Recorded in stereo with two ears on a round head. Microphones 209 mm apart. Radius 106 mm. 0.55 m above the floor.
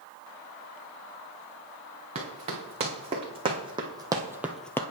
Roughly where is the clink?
No clink in this recording.